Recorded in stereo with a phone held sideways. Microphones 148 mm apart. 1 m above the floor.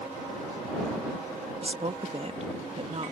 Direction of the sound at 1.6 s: 45° right (ahead or behind).